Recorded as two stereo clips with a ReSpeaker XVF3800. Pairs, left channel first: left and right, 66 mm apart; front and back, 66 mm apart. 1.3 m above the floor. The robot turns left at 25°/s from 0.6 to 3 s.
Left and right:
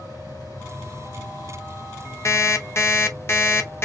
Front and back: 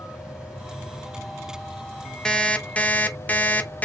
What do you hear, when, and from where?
0.0 s an insect: 105° left, 2.5 m; by 3.8 s 45° left, 2.5 m
2.2 s an alarm clock: 75° left, 0.8 m; by 3.8 s 55° left, 0.8 m